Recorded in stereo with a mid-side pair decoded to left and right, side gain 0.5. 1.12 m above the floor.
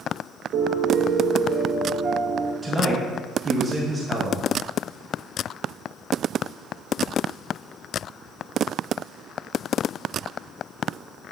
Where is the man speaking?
25° right, 1.0 m.